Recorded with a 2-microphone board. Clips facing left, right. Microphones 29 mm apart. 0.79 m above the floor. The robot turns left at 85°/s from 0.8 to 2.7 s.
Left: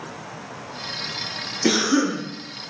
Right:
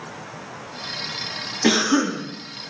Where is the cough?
70° right, 1.6 m; by 2.2 s 120° right, 1.6 m.